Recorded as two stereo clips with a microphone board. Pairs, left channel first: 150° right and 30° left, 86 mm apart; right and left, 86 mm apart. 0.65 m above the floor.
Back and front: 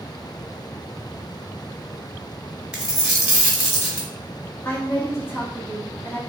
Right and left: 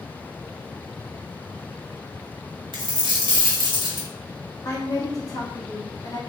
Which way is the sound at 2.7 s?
105° left.